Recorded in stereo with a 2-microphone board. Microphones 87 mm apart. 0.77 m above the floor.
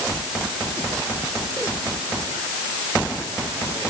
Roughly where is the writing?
I don't hear writing.